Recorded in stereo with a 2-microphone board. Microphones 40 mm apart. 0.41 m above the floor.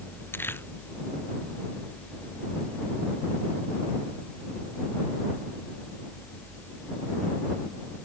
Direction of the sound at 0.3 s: 65° left (ahead or behind).